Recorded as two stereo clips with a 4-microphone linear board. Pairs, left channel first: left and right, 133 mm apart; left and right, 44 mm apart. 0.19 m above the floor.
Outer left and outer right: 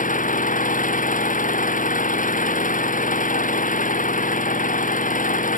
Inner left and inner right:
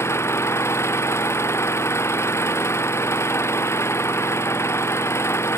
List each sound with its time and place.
0.0 s an engine running: 80° left